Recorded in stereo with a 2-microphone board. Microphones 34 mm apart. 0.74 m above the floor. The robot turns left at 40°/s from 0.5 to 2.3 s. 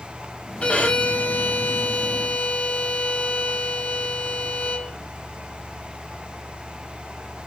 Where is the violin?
135° left, 0.8 m; by 5.0 s 65° left, 0.8 m.